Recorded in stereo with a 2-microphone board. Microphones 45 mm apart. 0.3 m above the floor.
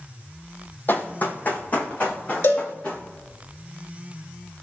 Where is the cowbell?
65° left (ahead or behind), 0.8 m.